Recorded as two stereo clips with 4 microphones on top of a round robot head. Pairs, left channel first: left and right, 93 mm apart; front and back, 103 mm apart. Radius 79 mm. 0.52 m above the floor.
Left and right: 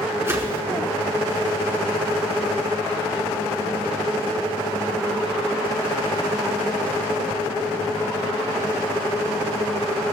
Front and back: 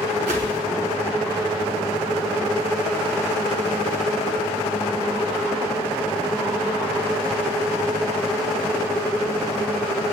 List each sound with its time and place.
0.3 s a whoosh: 155° right, 3 m